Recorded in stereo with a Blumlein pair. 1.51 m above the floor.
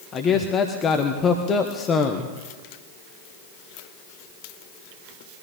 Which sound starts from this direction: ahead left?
A man speaking, at 0.1 s.